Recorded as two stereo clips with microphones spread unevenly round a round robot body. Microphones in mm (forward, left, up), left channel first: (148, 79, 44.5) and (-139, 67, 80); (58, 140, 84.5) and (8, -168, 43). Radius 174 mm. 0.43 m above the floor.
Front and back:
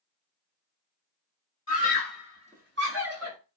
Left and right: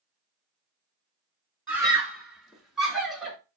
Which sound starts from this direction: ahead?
A scream, at 1.7 s.